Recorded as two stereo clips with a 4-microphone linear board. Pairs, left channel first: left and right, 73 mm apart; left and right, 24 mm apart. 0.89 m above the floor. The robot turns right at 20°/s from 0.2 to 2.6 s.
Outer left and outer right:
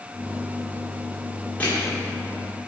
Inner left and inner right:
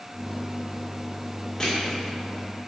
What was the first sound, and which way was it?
Crushing, 20° left (ahead or behind).